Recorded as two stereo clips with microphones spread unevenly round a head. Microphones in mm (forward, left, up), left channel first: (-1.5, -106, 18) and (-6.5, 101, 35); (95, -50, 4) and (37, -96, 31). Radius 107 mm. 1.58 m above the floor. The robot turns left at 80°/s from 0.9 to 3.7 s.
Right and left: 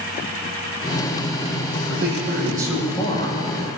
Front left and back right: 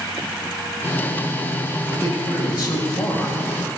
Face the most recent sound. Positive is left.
turn(degrees=-70)